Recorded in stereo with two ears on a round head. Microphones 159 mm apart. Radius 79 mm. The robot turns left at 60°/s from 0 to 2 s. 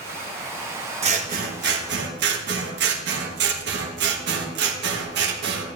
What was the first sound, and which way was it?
Scissors, 40° right.